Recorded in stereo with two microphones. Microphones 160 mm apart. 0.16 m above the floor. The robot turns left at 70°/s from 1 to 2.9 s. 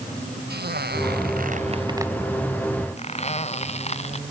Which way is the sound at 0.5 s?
85° right.